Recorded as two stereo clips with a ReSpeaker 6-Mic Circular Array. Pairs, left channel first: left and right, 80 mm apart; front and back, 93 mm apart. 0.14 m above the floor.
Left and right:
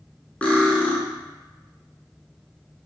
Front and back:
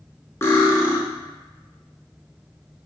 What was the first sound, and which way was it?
Cutlery clinking, 30° left.